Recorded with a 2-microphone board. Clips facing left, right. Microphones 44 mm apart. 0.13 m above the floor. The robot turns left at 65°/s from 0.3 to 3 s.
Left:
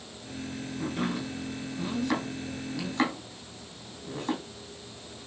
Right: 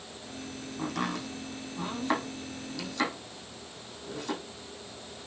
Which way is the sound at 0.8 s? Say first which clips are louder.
Left 1 dB; 60° right (ahead or behind).